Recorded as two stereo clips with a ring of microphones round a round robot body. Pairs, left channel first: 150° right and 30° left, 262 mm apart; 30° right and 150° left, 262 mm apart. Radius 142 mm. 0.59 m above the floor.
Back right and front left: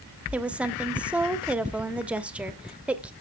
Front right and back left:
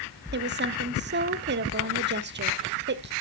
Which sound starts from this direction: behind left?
A woman speaking, at 0.3 s.